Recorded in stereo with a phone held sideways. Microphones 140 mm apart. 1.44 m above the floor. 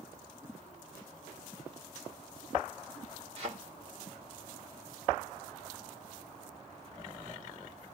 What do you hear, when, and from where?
3.4 s a thud: 45° right (ahead or behind), 3 m